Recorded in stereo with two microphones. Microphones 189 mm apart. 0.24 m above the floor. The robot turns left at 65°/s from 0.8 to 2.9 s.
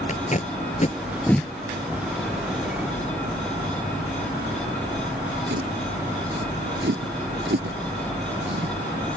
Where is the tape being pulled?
40° left (ahead or behind); by 8.7 s 80° right.